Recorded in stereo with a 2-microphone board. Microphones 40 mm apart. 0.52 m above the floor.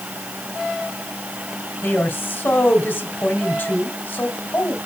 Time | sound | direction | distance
1.8 | a woman speaking | 60° left (ahead or behind) | 2.5 m